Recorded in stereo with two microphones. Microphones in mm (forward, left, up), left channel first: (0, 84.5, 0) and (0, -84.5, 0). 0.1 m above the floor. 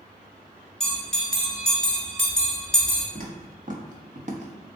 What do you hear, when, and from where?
0.8 s a bell: 5° left (ahead or behind), 1.3 m
3.1 s footsteps: 60° right (ahead or behind), 1.5 m; by 4.5 s 45° right (ahead or behind), 0.8 m